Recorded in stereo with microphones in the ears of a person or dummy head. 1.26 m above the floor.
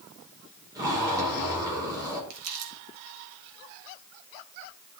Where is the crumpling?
85° right, 1.9 m.